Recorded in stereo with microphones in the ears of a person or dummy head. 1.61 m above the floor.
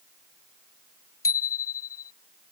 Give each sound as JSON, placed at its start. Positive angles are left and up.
{"t": 1.2, "sound": "a bicycle bell", "side_deg": 25}